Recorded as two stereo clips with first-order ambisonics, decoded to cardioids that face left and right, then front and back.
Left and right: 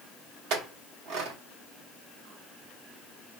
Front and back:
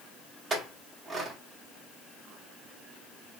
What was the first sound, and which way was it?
A clink, 110° right.